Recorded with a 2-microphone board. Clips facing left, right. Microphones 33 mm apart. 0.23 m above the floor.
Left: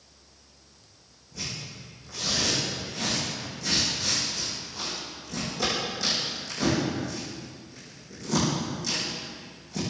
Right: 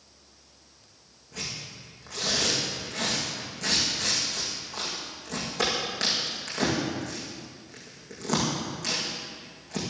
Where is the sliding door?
No sliding door in this recording.